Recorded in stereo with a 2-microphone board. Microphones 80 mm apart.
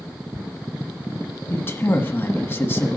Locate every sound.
1.5 s a man speaking: 30° left (ahead or behind), 1.4 m